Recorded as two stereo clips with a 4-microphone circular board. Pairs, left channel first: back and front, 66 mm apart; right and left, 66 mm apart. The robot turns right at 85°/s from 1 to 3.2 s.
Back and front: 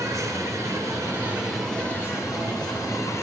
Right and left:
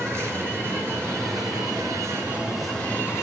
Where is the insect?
45° left, 3 m; by 3.2 s 130° right, 3 m.